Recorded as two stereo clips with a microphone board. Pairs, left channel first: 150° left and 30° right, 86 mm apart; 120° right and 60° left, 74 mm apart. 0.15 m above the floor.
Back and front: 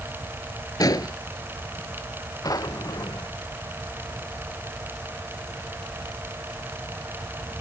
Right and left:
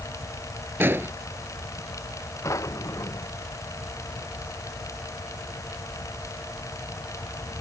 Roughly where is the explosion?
Behind left.